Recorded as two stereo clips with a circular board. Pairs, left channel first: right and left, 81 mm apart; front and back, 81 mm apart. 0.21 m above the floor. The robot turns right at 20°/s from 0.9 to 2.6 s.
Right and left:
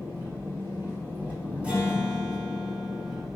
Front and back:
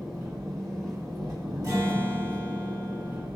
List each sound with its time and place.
0.0 s an engine running: 140° left, 1.5 m; by 3.4 s 175° left, 1.5 m
1.6 s a guitar: 165° left, 1.1 m; by 3.2 s straight behind, 1.1 m